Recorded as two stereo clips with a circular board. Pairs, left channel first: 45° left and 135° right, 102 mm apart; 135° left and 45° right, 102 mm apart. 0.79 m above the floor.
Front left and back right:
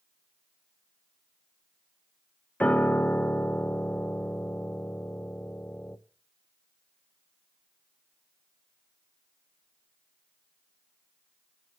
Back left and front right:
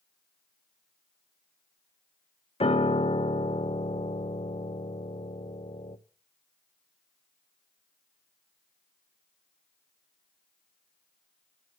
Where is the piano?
120° left, 0.7 m.